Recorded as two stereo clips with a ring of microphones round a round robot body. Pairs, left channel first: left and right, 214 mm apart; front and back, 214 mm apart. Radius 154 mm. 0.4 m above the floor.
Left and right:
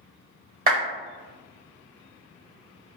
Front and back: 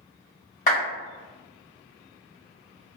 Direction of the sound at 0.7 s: 55° right.